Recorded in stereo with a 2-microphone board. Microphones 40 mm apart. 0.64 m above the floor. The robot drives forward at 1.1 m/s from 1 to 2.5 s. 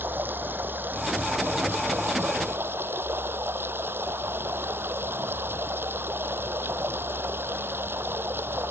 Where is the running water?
60° right (ahead or behind); by 8.7 s 80° right.